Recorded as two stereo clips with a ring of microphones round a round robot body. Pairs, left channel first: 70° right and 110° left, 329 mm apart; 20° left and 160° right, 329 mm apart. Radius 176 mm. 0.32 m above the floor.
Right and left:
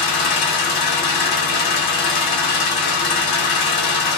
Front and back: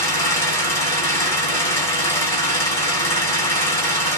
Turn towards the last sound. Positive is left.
turn(degrees=-60)